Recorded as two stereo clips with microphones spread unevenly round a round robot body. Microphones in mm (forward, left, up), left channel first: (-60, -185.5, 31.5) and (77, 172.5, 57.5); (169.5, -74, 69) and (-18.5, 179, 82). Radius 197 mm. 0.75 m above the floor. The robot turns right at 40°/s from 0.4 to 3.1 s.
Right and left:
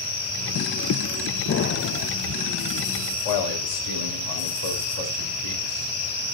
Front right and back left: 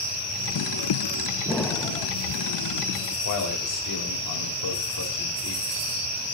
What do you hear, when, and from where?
1.5 s an explosion: 145° right, 0.6 m; by 2.1 s 120° right, 0.6 m
3.1 s a man speaking: 85° right, 3 m